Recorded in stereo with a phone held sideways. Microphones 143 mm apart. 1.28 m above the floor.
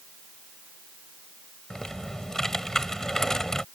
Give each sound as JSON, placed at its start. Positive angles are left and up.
{"t": 1.7, "sound": "typing on a keyboard", "side_deg": 5}